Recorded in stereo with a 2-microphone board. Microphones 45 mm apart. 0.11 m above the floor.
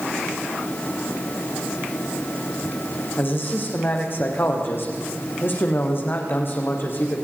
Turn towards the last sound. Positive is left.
turn(degrees=50)  # may be behind; listen again after turning